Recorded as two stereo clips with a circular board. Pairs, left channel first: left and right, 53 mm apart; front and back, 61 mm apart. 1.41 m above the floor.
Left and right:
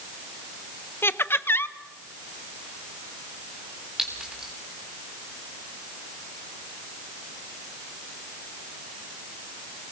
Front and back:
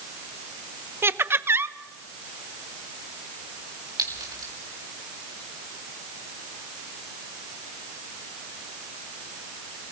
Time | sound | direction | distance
1.0 | laughter | 130° left | 0.9 m
4.0 | a clink | 170° right | 6 m